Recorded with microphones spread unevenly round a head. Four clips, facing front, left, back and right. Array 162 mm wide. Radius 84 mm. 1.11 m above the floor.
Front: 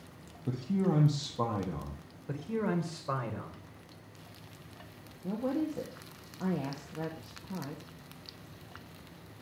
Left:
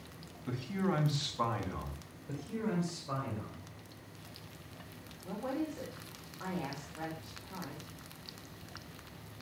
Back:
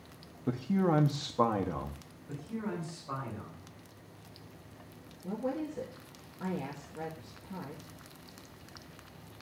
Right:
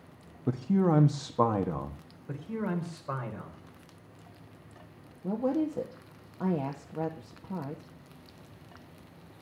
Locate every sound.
0.5 s a man speaking: 115° right, 1.3 m
2.3 s a man speaking: 20° right, 4 m
5.2 s a woman speaking: 85° right, 1.4 m